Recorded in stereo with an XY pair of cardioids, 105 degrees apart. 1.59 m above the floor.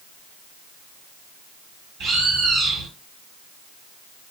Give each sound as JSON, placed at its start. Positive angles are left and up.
{"t": 2.0, "sound": "a bird", "azimuth_deg": -70, "distance_m": 2.0}